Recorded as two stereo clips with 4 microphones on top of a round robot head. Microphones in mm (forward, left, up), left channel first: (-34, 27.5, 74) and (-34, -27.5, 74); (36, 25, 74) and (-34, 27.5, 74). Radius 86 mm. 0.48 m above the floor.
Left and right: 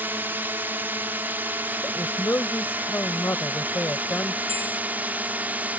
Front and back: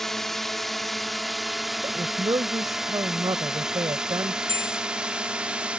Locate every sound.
0.0 s a drone: 85° right; by 5.8 s 120° right
1.8 s a woman speaking: 140° left
4.5 s a bell: 40° left